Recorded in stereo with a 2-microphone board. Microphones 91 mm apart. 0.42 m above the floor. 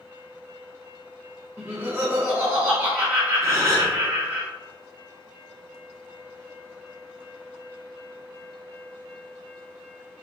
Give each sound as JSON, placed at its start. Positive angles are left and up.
{"t": 1.6, "sound": "laughter", "side_deg": -25, "distance_m": 1.1}
{"t": 3.4, "sound": "a gasp", "side_deg": -35, "distance_m": 1.7}